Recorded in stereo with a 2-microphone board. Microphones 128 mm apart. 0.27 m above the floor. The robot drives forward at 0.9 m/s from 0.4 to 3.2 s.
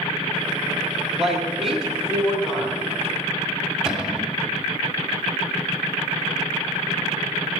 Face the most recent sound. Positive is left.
turn(degrees=-5)  # may be behind; listen again after turning